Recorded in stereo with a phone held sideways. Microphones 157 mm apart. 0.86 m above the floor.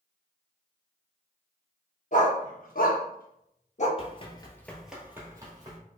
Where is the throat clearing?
No throat clearing in this recording.